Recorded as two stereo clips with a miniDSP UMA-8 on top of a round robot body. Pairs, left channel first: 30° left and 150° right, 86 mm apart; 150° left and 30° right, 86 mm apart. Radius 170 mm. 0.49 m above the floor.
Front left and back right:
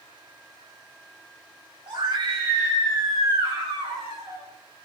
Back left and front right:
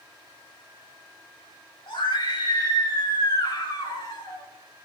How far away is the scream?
About 5.5 m.